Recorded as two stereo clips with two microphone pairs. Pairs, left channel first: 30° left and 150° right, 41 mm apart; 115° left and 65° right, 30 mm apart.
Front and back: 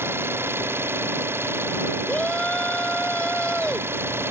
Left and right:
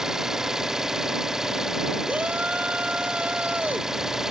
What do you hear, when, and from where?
0.0 s an engine running: 140° right
2.1 s a shout: 30° right